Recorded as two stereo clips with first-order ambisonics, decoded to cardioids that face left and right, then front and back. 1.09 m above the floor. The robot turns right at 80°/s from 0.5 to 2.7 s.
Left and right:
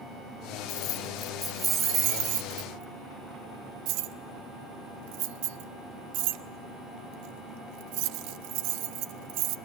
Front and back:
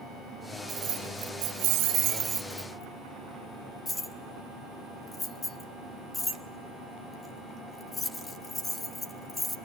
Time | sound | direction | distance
0.7 | keys jangling | 125° left | 1.3 m